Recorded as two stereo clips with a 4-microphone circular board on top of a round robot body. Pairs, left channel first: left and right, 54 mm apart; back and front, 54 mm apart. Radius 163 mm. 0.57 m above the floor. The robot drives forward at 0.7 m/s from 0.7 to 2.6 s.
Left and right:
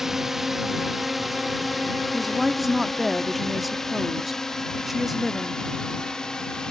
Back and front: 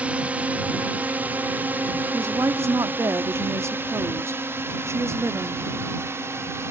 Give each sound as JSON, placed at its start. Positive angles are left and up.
{"t": 0.0, "sound": "a drone", "azimuth_deg": -15}
{"t": 2.1, "sound": "a woman speaking", "azimuth_deg": -5}